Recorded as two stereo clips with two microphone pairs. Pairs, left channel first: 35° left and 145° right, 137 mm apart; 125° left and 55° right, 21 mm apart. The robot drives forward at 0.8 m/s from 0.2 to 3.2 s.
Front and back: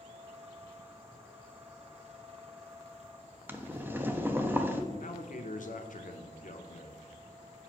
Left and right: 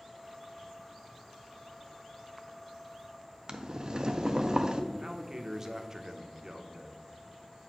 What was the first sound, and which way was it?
Boiling, 75° right.